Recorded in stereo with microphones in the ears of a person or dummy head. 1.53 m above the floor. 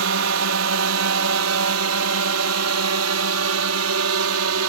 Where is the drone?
75° right (ahead or behind); by 4.7 s 80° right.